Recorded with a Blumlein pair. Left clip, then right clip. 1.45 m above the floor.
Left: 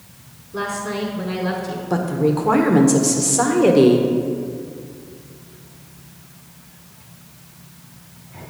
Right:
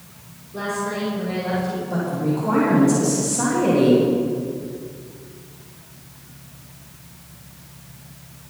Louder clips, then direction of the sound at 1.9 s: Left 8 dB; 60° left.